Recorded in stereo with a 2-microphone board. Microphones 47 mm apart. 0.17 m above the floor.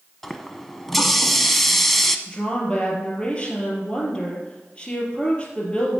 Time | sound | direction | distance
0.2 | a running tap | 5° left (ahead or behind) | 0.7 m
2.3 | a woman speaking | 20° left (ahead or behind) | 3.5 m